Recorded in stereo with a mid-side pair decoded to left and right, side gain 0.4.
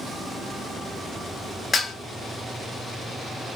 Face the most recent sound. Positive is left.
turn(degrees=50)